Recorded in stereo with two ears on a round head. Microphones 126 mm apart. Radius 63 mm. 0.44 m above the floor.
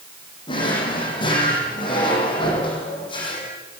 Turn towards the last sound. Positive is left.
turn(degrees=35)  # may be behind; listen again after turning